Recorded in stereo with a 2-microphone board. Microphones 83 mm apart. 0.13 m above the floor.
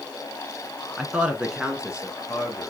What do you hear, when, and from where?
1.0 s a man speaking: 10° right (ahead or behind), 1.1 m